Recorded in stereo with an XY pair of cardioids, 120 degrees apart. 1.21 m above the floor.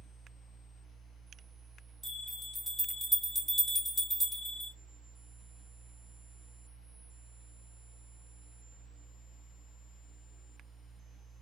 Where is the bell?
5° left, 1.6 m.